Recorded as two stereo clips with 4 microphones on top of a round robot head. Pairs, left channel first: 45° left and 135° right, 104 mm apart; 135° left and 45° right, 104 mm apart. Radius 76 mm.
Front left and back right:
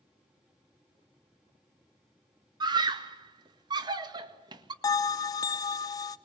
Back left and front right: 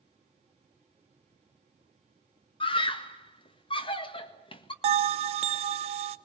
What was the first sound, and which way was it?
A scream, 175° left.